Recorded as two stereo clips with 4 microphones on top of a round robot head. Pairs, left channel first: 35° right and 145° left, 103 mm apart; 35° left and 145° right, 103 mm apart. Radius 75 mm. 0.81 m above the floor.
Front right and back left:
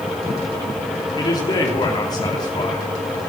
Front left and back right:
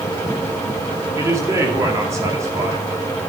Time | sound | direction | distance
1.2 | a man speaking | 85° right | 2.5 m